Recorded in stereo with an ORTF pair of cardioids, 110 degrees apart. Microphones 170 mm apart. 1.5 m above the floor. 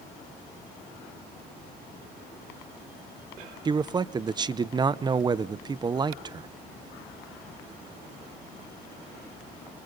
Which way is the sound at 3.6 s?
25° right.